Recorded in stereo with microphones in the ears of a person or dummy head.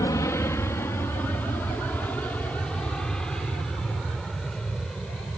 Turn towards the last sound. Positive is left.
turn(degrees=0)  # may be behind; listen again after turning